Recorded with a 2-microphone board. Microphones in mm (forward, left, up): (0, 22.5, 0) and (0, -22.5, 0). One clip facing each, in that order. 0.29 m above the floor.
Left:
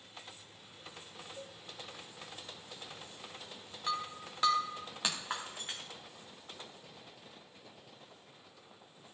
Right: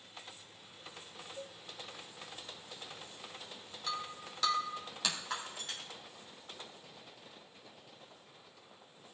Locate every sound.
1.4 s a cowbell: centre (ahead or behind), 1.3 m
3.9 s breaking glass: 25° left (ahead or behind), 3 m